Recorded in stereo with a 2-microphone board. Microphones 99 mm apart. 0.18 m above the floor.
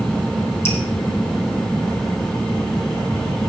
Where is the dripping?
25° left (ahead or behind), 3 m.